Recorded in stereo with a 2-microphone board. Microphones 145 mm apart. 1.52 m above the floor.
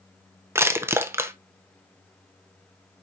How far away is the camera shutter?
No camera shutter in this recording.